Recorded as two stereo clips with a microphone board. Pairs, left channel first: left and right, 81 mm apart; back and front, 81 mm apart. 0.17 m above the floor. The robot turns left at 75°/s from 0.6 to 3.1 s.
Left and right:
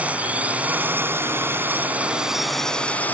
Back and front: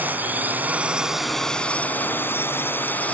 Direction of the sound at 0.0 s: 40° right.